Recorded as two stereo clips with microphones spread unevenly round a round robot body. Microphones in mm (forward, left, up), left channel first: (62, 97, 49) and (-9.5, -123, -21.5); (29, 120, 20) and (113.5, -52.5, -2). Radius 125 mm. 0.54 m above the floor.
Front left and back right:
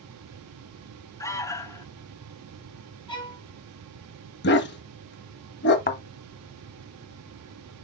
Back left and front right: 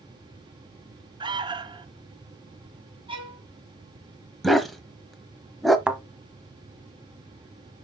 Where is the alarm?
20° right, 1.0 m.